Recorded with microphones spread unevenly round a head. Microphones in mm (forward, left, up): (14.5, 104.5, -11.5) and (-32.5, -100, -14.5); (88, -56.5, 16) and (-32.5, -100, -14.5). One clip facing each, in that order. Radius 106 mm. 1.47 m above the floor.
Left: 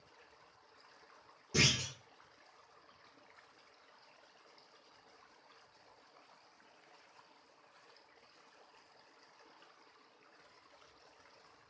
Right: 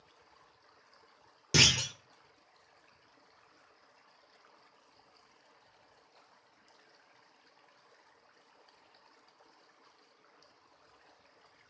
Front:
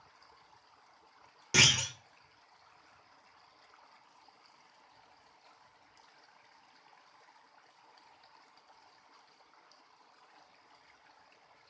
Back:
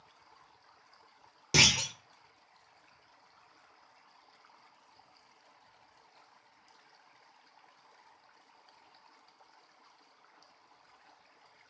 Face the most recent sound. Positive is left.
turn(degrees=-95)